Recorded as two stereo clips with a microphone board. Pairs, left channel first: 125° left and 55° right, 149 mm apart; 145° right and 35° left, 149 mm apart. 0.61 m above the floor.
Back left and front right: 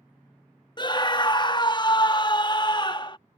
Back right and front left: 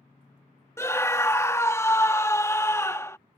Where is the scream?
155° left.